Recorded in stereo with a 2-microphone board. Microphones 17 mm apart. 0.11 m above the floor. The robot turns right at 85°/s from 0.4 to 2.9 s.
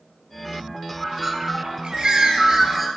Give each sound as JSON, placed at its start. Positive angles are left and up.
{"t": 1.0, "sound": "a bird", "azimuth_deg": -165, "distance_m": 0.9}